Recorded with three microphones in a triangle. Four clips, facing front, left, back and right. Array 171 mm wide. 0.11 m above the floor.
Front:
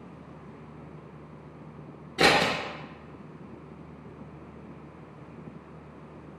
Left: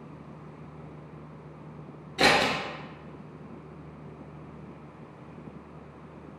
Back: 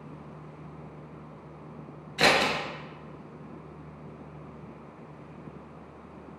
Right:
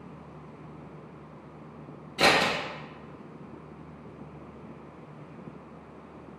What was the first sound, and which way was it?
Scissors, 5° right.